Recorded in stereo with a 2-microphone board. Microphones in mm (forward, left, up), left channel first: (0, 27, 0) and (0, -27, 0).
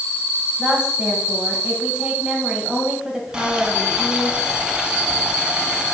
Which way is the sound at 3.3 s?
15° right (ahead or behind).